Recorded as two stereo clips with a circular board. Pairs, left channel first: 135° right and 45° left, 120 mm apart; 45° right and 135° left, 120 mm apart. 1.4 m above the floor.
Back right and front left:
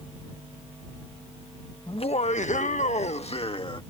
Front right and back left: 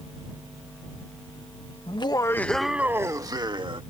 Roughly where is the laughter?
Right.